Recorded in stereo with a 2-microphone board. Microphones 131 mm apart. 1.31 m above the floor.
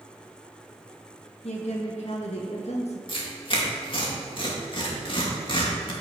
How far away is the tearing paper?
About 2.5 m.